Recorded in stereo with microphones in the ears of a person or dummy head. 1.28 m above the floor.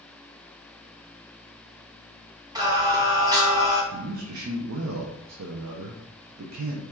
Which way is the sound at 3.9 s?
75° right (ahead or behind).